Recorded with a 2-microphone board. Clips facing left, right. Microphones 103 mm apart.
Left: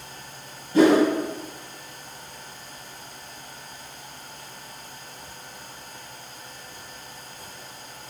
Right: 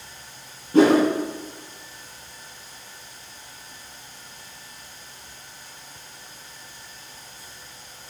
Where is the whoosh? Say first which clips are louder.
Right 1 dB; 70° right (ahead or behind), 1.9 m.